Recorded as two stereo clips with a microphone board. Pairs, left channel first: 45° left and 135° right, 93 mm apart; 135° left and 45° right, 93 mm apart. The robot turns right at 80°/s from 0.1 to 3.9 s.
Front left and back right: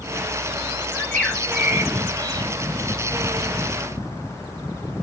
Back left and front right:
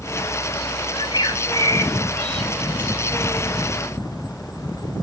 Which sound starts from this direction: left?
A bird, at 0.9 s.